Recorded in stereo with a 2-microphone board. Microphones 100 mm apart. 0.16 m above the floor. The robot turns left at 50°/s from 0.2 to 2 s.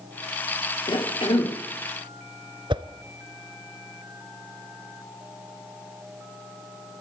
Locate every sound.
0.9 s a cough: 115° left, 3 m; by 1.6 s 80° left, 3 m
2.7 s a whoosh: 55° right (ahead or behind), 0.8 m